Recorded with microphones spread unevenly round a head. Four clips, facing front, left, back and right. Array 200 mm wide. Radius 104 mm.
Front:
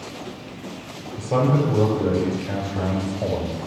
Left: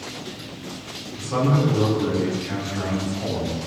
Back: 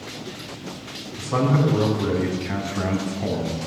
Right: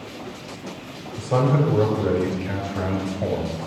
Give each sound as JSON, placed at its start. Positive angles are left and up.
{"t": 1.1, "sound": "a man speaking", "azimuth_deg": -35, "distance_m": 4.5}